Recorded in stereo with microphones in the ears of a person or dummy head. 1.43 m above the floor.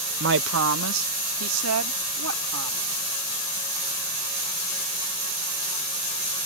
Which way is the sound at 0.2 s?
60° right (ahead or behind).